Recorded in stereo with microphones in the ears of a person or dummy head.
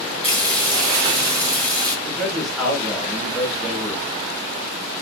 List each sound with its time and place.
0.2 s frying: 30° right (ahead or behind), 1.9 m
2.0 s a man speaking: centre (ahead or behind), 1.1 m